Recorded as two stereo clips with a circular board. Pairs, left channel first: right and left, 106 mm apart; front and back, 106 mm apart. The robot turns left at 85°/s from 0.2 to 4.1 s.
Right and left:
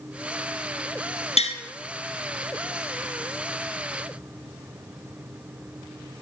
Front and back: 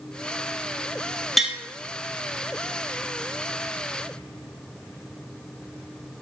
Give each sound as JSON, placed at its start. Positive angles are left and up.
{"t": 1.4, "sound": "tapping", "azimuth_deg": -90, "distance_m": 1.2}